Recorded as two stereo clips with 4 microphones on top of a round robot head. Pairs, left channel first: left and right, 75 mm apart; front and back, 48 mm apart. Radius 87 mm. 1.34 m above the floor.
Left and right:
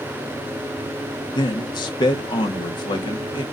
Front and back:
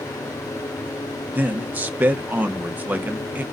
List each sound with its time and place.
1.4 s a man speaking: 125° left, 1.0 m